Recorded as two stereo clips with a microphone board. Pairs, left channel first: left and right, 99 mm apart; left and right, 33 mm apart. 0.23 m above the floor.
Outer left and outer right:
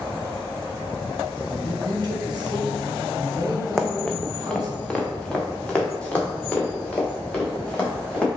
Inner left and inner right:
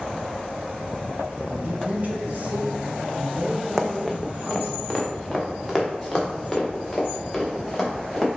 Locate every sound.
1.5 s a man speaking: 45° right (ahead or behind), 1.6 m
3.8 s running footsteps: 5° left (ahead or behind), 0.7 m; by 8.3 s 10° left (ahead or behind), 3.5 m